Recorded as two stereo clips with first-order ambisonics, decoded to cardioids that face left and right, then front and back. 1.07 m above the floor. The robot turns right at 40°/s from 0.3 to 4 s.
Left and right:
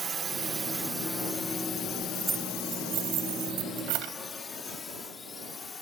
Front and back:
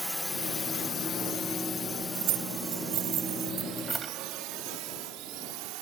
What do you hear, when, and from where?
0.0 s a drone: 90° right; by 5.8 s 160° left
2.1 s keys jangling: 175° right; by 4.1 s 100° right